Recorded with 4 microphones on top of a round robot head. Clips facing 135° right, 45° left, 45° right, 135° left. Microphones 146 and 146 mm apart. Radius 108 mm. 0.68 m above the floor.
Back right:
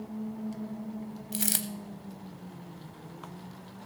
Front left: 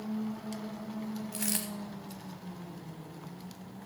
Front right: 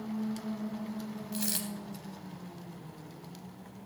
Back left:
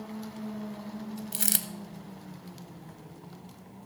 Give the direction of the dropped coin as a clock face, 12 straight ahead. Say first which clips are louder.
Back right 1 dB, front right 2 dB; 6 o'clock.